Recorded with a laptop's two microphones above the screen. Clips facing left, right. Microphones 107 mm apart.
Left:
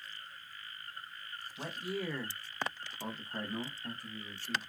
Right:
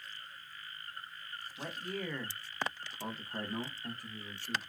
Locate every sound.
1.6 s a man speaking: 10° left (ahead or behind), 1.0 m; by 4.6 s 10° right (ahead or behind), 1.2 m